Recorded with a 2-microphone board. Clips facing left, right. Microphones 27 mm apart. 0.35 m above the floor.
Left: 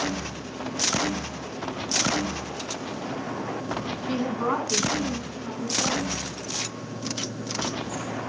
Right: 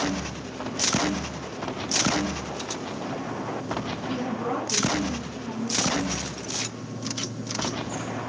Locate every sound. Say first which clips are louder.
4.1 s a woman speaking: left 4 dB; 60° left (ahead or behind), 2.5 m; by 6.1 s 75° left (ahead or behind), 4.5 m